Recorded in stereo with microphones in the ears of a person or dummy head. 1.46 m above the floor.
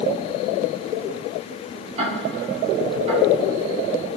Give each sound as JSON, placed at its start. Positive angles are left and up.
{"t": 2.0, "sound": "ticking", "side_deg": -35, "distance_m": 4.0}